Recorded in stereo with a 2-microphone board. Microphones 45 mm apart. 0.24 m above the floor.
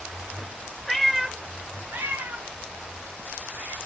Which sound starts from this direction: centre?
A cat meowing, at 0.9 s.